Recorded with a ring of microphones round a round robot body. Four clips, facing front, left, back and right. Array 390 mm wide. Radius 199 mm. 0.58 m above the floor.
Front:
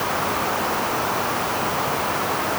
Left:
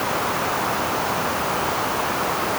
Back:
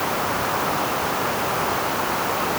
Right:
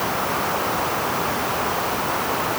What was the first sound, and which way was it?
Only background noise.